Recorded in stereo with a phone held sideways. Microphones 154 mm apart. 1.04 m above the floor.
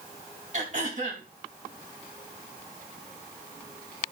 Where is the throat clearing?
50° right (ahead or behind), 3 m.